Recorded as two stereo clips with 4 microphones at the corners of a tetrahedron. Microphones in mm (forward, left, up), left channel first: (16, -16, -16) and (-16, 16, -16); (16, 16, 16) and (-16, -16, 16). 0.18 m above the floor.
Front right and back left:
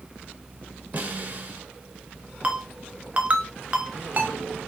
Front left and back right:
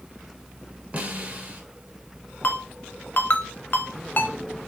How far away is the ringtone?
About 0.7 m.